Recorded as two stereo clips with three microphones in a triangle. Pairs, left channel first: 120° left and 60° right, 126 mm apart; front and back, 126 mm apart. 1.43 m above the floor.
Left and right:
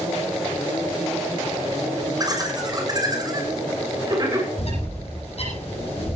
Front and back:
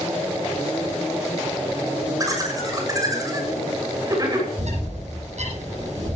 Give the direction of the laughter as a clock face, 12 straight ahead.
4 o'clock.